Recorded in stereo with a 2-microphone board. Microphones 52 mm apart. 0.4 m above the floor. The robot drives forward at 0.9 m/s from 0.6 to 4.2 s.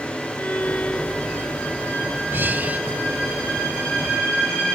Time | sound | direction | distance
0.4 | a violin | 35° left (ahead or behind) | ?
2.3 | breathing | 45° right (ahead or behind) | ?